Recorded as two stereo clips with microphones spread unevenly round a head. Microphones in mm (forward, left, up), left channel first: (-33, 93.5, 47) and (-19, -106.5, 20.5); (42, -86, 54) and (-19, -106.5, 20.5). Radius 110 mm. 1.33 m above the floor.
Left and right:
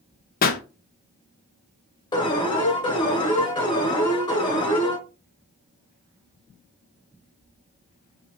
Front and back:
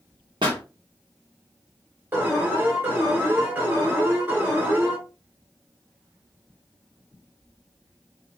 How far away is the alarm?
About 1.7 m.